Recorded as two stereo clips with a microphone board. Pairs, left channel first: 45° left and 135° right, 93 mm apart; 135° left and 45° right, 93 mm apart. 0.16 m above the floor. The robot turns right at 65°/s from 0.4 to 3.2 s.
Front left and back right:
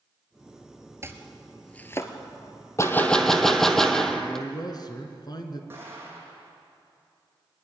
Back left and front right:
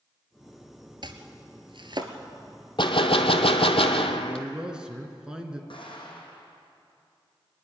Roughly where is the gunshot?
Left.